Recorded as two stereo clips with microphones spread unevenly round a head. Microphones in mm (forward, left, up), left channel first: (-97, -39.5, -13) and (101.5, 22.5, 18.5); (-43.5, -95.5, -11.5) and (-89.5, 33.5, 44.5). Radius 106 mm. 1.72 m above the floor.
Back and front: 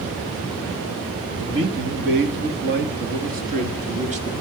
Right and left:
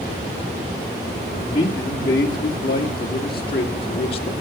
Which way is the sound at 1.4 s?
10° right.